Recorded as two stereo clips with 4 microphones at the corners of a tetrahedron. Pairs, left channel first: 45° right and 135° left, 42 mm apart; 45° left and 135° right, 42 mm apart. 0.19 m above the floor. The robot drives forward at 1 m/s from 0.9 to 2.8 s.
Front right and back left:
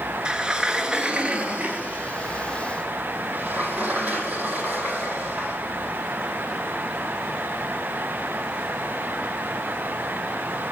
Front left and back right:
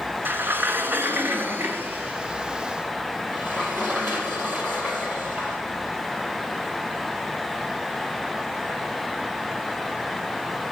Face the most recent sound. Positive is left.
turn(degrees=-170)